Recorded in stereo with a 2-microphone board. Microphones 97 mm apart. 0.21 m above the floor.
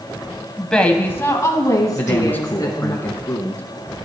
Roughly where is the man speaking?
Left.